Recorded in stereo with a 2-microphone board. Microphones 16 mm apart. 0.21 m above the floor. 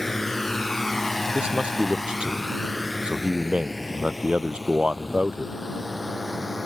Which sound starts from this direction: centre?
A drone, at 0.0 s.